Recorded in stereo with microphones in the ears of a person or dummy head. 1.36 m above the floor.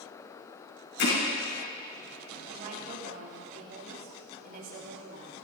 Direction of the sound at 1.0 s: 75° left (ahead or behind).